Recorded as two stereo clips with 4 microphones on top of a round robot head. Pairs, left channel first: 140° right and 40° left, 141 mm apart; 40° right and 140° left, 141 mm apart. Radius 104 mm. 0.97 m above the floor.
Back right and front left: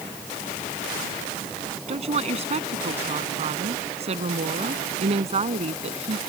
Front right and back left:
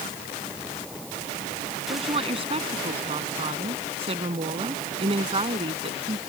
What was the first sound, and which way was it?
A woman speaking, 85° left.